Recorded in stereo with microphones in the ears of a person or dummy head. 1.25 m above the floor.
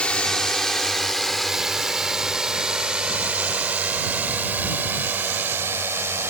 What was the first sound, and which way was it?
A drone, 5° left (ahead or behind).